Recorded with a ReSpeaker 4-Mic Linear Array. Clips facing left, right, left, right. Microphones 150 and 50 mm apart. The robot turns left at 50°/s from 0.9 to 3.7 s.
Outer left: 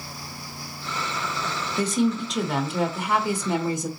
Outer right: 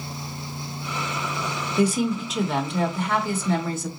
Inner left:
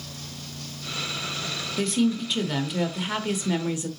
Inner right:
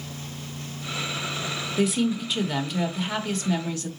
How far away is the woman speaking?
About 0.8 m.